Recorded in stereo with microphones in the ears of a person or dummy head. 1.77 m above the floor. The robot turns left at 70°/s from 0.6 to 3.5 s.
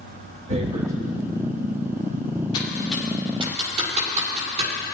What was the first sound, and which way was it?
Tearing paper, 35° right (ahead or behind).